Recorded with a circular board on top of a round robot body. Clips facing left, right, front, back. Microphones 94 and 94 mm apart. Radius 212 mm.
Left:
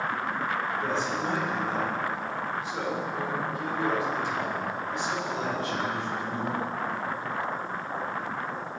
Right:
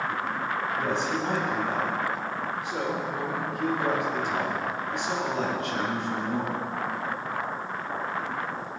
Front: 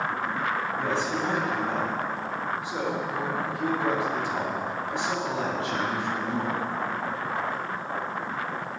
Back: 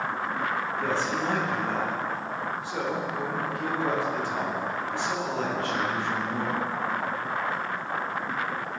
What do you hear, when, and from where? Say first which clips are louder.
0.8 s a man speaking: right 1 dB, even; 70° right, 4 m